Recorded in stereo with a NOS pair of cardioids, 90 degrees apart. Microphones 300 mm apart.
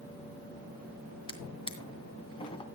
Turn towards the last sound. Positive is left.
turn(degrees=20)